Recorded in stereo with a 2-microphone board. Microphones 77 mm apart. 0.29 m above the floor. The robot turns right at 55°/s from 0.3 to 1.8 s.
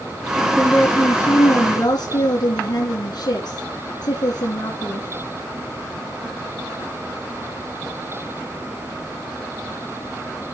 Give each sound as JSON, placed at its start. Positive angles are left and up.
{"t": 0.6, "sound": "a woman speaking", "azimuth_deg": 0, "distance_m": 3.0}